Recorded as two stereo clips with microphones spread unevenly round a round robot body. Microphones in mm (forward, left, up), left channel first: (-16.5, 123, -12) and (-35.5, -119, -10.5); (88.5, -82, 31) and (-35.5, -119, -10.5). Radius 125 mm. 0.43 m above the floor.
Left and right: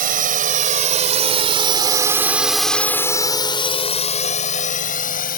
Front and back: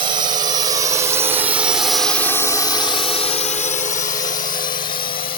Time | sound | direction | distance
0.0 | a drone | 145° right | ?